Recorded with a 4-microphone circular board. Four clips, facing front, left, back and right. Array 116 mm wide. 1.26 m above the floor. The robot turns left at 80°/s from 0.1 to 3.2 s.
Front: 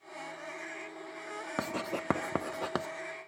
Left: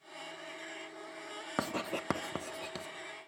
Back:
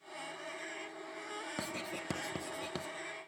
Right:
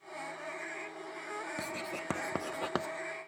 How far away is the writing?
About 0.8 m.